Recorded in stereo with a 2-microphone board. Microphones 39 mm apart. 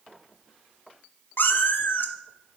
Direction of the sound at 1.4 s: 65° left (ahead or behind).